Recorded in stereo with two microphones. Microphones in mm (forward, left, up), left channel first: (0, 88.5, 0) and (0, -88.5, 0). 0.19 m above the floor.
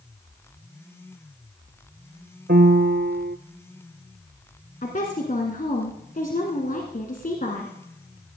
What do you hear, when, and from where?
2.5 s a piano: 75° right (ahead or behind), 0.6 m
4.8 s a woman speaking: 55° left (ahead or behind), 1.8 m